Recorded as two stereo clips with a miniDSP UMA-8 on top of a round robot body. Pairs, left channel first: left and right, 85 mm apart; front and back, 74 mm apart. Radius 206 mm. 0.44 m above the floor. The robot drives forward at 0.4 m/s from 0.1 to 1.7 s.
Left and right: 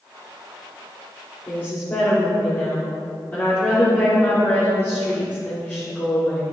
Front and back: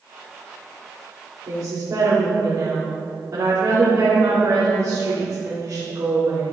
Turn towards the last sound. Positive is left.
turn(degrees=150)